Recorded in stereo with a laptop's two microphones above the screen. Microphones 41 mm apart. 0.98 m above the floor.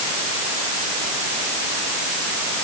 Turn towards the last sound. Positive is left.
No sound to turn to.